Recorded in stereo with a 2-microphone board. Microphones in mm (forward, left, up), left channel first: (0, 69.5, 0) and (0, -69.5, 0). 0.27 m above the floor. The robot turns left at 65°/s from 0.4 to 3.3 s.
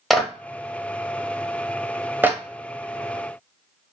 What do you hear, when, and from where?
0.1 s a clap: centre (ahead or behind), 0.8 m; by 2.4 s 15° right (ahead or behind), 0.8 m